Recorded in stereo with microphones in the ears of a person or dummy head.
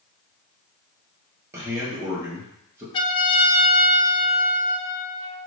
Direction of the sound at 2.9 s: 25° left (ahead or behind).